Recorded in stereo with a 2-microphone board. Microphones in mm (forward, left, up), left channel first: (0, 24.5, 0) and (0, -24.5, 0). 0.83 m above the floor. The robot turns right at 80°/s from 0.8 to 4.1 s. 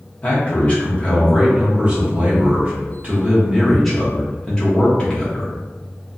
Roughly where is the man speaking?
Behind left.